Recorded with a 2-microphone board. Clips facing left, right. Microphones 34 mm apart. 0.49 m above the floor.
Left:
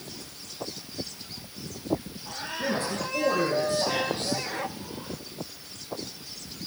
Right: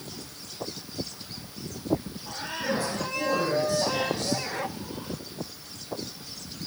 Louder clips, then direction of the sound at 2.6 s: Even; 55° left (ahead or behind).